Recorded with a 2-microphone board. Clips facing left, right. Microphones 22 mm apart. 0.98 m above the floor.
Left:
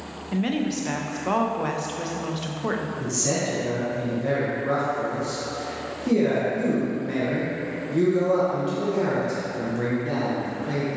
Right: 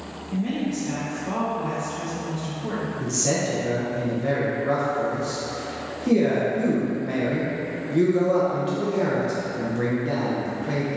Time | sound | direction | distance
0.3 | a woman speaking | 65° left (ahead or behind) | 0.5 m
3.0 | a man speaking | 10° right (ahead or behind) | 0.7 m